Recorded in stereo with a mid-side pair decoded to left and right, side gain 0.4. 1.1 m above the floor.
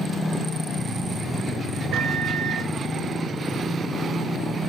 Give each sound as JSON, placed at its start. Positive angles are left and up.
{"t": 1.9, "sound": "a microwave", "azimuth_deg": -70, "distance_m": 0.6}